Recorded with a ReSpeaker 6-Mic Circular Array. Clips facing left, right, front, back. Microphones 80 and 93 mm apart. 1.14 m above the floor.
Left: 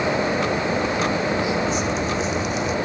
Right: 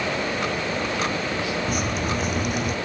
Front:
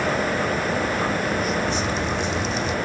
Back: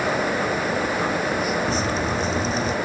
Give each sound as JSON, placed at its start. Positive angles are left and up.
{"t": 1.7, "sound": "dripping", "azimuth_deg": -130}